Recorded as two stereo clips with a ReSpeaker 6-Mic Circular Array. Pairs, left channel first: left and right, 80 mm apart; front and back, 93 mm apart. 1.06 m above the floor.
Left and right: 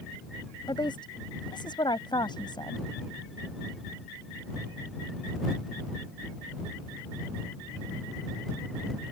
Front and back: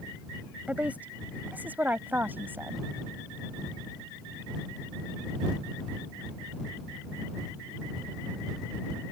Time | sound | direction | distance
0.7 | a woman speaking | 105° left | ?